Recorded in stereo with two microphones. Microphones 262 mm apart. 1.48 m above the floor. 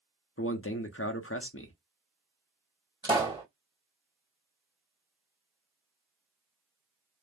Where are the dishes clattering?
I don't hear dishes clattering.